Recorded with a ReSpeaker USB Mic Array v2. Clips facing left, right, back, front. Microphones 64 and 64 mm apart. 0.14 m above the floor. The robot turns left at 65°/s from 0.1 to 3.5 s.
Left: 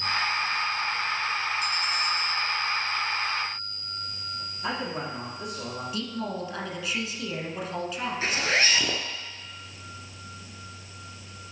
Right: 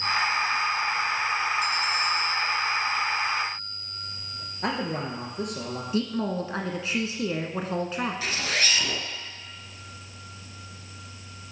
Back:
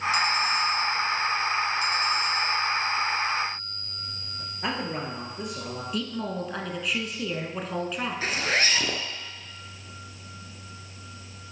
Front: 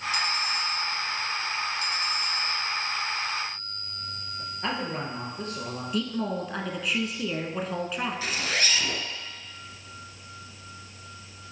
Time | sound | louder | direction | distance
4.6 | a man speaking | right 3 dB, back 1 dB | 105° right | 2.5 m
5.9 | a woman speaking | right 7 dB, front 3 dB | 90° right | 1.2 m
8.2 | a zipper | left 3 dB, back 7 dB | 135° left | 1.1 m